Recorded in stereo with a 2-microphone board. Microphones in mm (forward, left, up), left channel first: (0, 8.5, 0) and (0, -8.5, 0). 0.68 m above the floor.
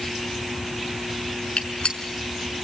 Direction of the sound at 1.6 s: 65° left (ahead or behind).